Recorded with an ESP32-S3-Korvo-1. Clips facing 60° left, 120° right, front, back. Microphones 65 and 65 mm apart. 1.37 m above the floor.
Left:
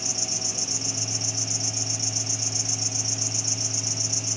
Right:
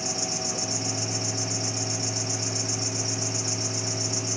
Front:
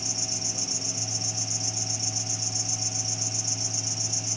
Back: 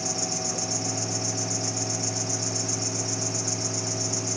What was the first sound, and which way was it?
An insect, 155° right.